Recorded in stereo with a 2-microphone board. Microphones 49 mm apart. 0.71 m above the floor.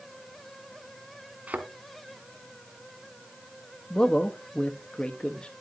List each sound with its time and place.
1.5 s a thud: 35° right (ahead or behind), 2.5 m
3.9 s a man speaking: 20° left (ahead or behind), 1.0 m